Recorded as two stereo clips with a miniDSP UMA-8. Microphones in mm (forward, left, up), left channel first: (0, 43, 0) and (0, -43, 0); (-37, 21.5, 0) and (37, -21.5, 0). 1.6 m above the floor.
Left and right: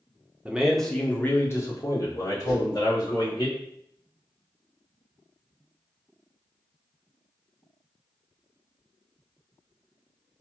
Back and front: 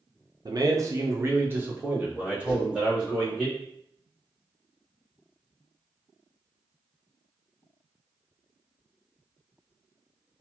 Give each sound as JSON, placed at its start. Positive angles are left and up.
{"t": 0.5, "sound": "a man speaking", "azimuth_deg": -20, "distance_m": 0.5}
{"t": 2.5, "sound": "a whoosh", "azimuth_deg": 40, "distance_m": 1.5}